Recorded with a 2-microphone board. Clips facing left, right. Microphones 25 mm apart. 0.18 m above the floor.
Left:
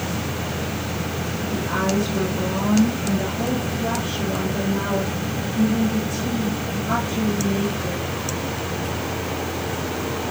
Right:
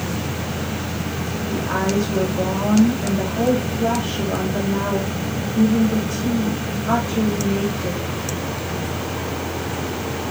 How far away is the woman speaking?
About 9 m.